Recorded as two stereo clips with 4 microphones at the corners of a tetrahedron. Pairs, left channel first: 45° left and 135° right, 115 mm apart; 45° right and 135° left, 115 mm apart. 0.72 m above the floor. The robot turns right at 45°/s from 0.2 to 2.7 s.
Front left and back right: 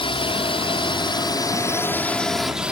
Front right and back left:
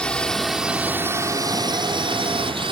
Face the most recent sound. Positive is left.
turn(degrees=145)